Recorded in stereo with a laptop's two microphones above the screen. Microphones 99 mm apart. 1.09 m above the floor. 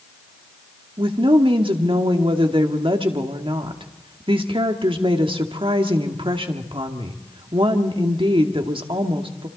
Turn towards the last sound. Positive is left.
turn(degrees=-60)  # may be behind; listen again after turning